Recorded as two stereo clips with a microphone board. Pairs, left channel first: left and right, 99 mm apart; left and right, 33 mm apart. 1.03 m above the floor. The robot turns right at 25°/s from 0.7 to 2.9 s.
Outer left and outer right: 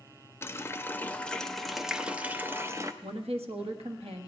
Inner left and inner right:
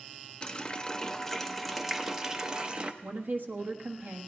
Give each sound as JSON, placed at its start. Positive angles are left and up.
{"t": 0.4, "sound": "a running tap", "azimuth_deg": 155, "distance_m": 0.6}
{"t": 3.0, "sound": "a woman speaking", "side_deg": -75, "distance_m": 1.3}